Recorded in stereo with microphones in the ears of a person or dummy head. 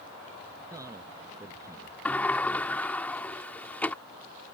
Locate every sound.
0.7 s a man speaking: 20° right (ahead or behind)
2.0 s a sliding door: 5° left (ahead or behind)